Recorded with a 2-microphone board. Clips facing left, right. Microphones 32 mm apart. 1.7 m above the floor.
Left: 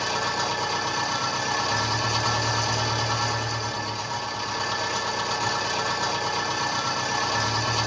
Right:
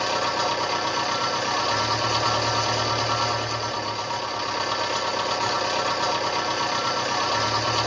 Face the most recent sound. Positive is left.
turn(degrees=-20)  # may be behind; listen again after turning